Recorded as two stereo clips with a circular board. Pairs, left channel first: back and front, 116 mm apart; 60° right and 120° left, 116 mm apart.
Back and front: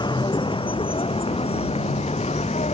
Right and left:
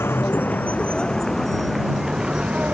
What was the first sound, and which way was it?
A vehicle, 130° right.